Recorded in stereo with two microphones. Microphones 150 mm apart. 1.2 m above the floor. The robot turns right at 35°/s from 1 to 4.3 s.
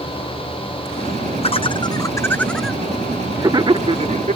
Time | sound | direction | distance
1.4 | laughter | 40° left (ahead or behind) | ?